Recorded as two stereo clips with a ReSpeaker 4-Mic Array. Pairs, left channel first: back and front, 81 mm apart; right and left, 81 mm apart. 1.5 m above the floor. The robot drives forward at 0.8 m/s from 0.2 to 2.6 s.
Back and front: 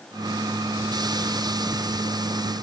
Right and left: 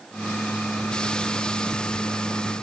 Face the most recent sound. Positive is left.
No sound to turn to.